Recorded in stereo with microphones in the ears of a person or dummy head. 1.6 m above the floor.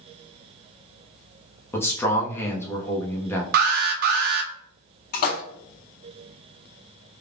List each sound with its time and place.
1.7 s a man speaking: 15° left (ahead or behind), 0.6 m
3.5 s an alarm: 60° right (ahead or behind), 0.6 m
5.1 s a splash: 55° left (ahead or behind), 0.7 m